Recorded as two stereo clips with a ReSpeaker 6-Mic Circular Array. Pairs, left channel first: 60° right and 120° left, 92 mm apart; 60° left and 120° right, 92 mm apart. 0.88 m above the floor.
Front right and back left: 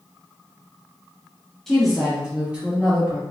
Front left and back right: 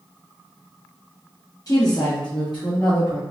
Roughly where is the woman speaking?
Ahead left.